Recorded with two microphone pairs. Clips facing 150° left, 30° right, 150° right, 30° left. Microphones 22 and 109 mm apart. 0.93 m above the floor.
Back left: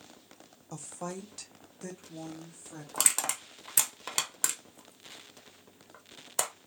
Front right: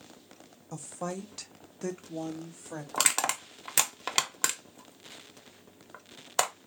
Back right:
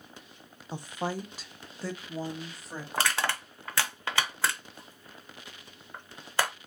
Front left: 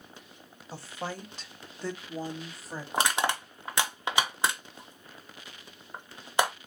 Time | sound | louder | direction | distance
0.7 | a woman speaking | front right 3 dB, back right 4 dB | 150° right | 0.7 m
2.9 | crushing | front right 3 dB, front left 2 dB | 20° right | 0.6 m